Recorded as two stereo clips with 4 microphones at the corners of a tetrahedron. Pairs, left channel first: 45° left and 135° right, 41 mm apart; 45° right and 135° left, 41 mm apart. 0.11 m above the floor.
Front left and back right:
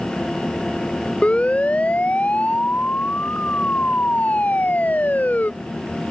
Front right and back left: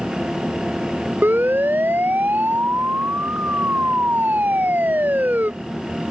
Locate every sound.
1.2 s a siren: 105° left; by 5.5 s 95° left